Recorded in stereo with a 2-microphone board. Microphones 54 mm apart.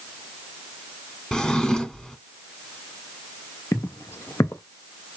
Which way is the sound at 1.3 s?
10° left (ahead or behind).